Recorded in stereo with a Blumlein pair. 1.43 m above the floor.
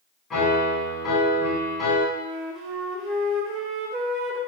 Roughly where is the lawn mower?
No lawn mower in this recording.